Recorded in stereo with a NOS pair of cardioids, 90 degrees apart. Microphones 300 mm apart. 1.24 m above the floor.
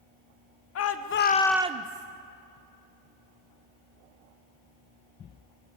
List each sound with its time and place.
0.8 s a shout: 60° left, 1.2 m; by 2.1 s 70° right, 0.8 m